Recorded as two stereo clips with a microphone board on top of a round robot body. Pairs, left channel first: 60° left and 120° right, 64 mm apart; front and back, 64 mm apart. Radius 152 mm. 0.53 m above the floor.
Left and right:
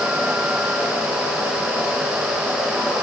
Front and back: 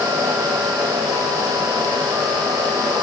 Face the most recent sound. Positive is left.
No sound to turn to.